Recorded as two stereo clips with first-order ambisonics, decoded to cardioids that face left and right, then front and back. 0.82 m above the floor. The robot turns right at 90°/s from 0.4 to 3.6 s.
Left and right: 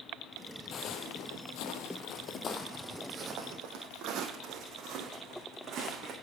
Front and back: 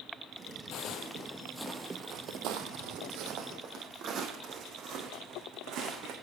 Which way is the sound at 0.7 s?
35° left.